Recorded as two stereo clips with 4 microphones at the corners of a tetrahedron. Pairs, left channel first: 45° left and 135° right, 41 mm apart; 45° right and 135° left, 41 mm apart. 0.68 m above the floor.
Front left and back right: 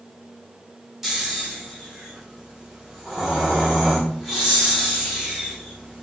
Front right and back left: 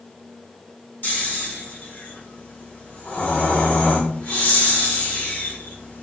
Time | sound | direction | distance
1.0 | snoring | 60° right | 1.2 m